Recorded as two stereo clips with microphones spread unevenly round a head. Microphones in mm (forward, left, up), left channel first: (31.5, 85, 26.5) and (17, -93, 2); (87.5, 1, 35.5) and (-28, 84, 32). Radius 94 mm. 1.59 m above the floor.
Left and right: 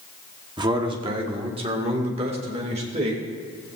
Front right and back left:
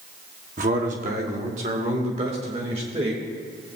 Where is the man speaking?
165° right, 1.2 m; by 3.2 s 155° right, 2.5 m.